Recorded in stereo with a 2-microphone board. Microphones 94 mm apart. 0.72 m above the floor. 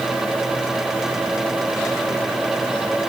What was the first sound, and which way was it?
Only background noise.